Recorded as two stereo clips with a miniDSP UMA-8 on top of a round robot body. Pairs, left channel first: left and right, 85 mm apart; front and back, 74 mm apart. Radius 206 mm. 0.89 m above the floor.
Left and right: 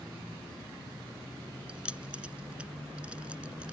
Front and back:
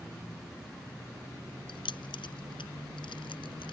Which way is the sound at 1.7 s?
10° right.